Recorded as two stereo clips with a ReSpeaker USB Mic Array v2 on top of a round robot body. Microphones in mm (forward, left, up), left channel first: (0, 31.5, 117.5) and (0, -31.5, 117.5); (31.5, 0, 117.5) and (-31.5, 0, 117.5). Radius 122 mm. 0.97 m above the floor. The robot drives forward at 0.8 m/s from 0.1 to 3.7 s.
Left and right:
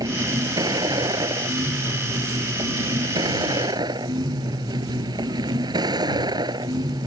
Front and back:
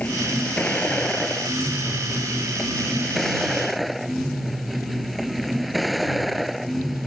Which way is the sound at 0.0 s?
70° right.